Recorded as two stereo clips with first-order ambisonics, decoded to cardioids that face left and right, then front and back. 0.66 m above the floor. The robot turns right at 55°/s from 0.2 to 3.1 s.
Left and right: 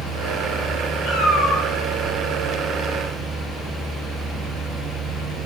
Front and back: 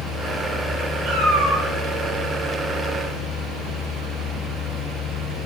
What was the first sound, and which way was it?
A cat meowing, 135° left.